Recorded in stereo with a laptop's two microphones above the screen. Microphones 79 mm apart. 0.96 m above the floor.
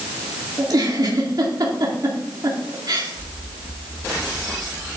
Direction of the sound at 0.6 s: 60° right (ahead or behind).